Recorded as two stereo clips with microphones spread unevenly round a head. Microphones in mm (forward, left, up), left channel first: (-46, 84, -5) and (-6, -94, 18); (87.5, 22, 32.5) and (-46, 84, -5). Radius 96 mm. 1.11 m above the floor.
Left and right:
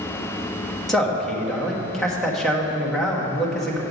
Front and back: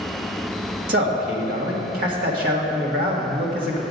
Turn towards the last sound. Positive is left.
turn(degrees=-170)